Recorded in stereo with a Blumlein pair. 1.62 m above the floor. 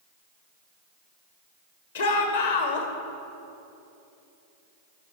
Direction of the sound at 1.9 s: 60° left.